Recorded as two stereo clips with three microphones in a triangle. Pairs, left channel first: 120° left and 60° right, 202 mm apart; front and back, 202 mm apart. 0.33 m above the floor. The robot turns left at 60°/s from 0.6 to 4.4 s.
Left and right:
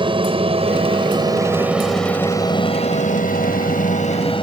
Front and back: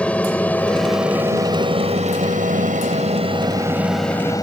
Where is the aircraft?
75° right; by 4.4 s 65° left.